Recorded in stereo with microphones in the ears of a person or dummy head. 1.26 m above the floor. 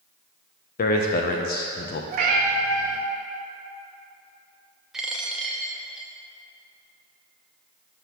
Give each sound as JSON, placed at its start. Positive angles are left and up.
{"t": 0.8, "sound": "a man speaking", "side_deg": 45, "distance_m": 0.6}
{"t": 2.1, "sound": "a cat meowing", "side_deg": -50, "distance_m": 0.8}
{"t": 4.9, "sound": "a dropped coin", "side_deg": -5, "distance_m": 0.7}